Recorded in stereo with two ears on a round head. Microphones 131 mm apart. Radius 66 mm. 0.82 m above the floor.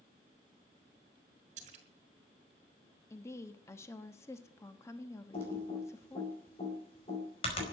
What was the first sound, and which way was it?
A splash, 50° right (ahead or behind).